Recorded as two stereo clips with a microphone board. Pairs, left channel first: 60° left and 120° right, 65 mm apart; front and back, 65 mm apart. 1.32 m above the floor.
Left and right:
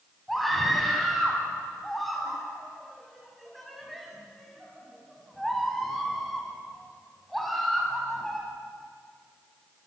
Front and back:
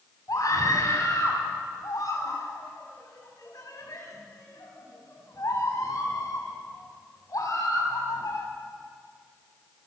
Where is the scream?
25° right, 8.5 m.